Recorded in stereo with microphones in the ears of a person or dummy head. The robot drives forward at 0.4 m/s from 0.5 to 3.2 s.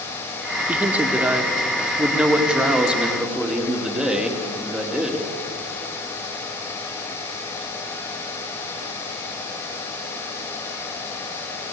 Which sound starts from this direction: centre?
A man speaking, at 0.7 s.